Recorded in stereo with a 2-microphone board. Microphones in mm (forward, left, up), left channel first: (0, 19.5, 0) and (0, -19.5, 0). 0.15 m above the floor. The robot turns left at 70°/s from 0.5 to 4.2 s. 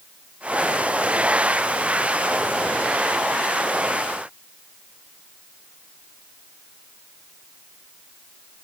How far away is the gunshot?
No gunshot in this recording.